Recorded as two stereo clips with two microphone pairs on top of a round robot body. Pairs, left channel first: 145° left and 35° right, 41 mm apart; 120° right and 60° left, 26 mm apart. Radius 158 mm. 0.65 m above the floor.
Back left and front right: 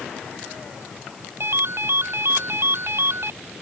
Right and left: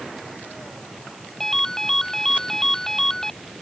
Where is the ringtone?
50° right.